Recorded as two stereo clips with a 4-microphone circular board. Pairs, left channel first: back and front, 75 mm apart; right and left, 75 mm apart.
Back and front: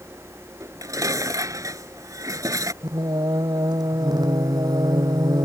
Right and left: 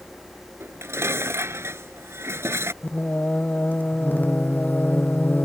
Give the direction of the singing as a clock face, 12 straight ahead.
1 o'clock.